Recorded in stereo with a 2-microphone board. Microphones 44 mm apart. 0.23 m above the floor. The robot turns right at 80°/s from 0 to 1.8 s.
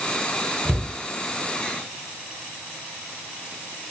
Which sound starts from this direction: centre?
A cupboard door, at 0.7 s.